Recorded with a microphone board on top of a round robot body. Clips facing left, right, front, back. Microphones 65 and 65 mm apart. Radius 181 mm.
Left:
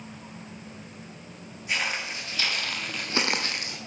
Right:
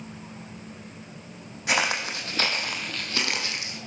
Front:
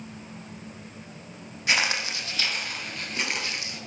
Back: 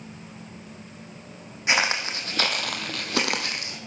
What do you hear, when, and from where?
1.7 s footsteps: 110° right, 1.7 m; by 3.8 s 130° left, 1.7 m